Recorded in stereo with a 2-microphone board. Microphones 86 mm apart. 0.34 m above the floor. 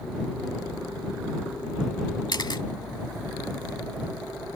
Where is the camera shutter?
55° left (ahead or behind).